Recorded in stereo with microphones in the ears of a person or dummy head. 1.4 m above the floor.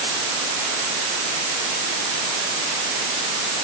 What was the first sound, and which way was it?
Only background noise.